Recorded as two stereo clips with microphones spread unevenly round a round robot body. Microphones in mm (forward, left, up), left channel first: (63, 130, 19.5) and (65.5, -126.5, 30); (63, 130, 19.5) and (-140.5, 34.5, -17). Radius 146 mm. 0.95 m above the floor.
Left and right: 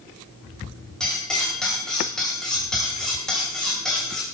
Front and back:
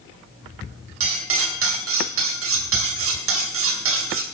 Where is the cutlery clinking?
Straight behind, 2.5 m.